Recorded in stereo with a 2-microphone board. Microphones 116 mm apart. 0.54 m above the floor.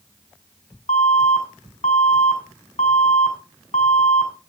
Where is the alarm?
70° left (ahead or behind), 6 m.